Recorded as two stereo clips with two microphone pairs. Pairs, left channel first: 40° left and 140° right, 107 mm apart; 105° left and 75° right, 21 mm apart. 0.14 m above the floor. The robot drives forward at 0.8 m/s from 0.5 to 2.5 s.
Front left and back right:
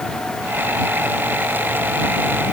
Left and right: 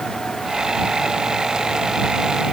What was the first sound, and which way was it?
Only background noise.